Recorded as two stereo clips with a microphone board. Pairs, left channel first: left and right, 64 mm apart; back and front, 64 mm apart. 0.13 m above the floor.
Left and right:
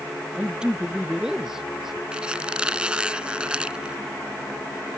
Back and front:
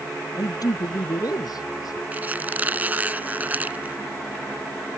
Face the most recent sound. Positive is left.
turn(degrees=-30)